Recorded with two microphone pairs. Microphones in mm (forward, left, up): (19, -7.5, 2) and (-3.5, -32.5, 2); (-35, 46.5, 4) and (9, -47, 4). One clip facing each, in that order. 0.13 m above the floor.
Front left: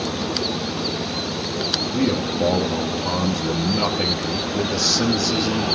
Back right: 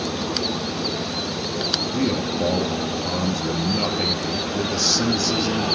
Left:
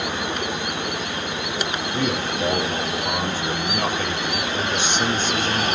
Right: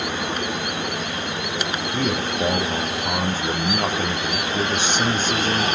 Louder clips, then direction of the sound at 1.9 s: Front left 3 dB, right 1 dB; 40° right.